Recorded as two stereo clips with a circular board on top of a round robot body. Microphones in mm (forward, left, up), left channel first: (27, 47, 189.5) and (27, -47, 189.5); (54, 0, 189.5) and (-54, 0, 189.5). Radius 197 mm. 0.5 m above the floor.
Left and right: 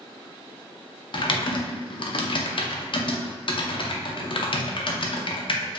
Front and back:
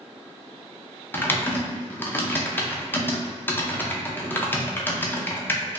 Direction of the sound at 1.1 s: 70° left.